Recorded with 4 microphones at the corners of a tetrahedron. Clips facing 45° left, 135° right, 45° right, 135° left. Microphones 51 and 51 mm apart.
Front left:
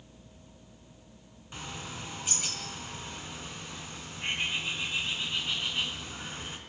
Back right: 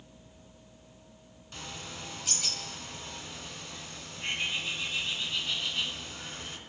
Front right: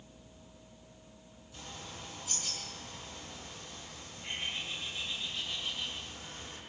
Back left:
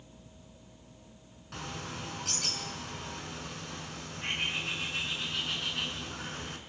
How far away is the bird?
About 4.5 m.